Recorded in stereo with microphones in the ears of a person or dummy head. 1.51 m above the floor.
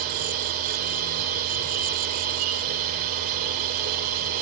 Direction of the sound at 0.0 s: 45° right (ahead or behind).